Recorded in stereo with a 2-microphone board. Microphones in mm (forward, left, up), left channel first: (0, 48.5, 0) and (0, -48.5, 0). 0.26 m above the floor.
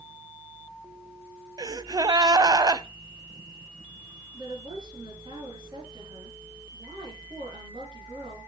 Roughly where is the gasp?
Right.